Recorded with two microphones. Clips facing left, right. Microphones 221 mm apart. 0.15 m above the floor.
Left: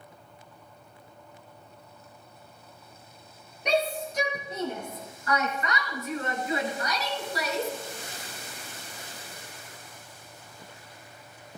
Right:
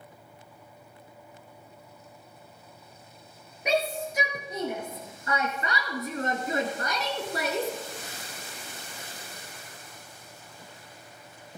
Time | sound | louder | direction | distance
3.6 | a shout | left 1 dB | 5° right (ahead or behind) | 3.5 m